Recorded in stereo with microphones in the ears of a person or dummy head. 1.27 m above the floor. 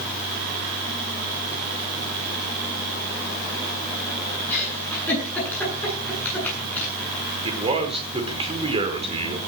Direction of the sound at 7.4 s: 30° right (ahead or behind).